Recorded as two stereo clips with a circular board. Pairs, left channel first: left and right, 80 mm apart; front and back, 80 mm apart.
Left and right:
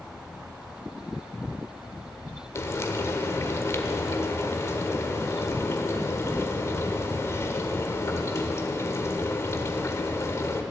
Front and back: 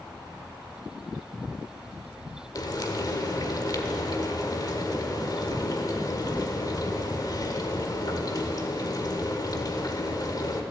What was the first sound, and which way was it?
Frying, 35° left.